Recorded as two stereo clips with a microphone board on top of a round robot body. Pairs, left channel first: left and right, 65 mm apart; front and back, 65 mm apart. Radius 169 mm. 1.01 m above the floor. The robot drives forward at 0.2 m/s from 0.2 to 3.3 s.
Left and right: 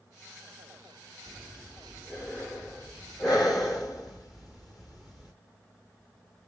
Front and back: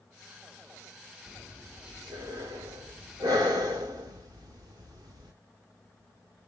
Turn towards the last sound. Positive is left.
turn(degrees=-175)